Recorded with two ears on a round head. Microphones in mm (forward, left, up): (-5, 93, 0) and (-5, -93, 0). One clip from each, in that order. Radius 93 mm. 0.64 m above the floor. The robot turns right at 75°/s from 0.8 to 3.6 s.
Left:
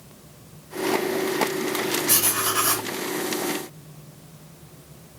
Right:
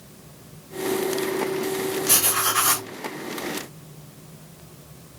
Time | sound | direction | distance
2.1 | writing | 155° left | 1.9 m